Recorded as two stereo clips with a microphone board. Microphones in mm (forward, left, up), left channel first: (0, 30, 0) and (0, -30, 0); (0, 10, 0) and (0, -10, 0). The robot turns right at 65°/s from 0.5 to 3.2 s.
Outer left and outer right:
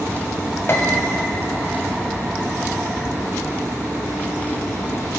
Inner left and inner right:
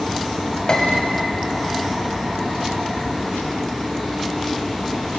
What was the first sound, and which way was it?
A piano, 45° left (ahead or behind).